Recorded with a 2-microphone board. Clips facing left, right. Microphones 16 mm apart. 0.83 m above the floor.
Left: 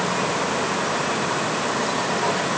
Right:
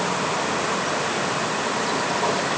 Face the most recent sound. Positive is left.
No sound to turn to.